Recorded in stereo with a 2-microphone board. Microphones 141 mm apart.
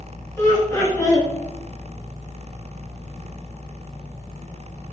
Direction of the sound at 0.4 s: 15° left (ahead or behind).